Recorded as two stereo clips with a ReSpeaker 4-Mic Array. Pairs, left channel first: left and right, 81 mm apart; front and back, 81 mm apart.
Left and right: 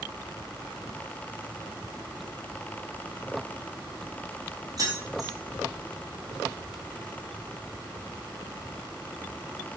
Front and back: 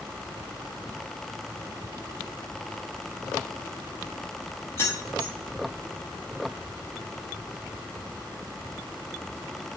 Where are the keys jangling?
55° right, 0.8 m.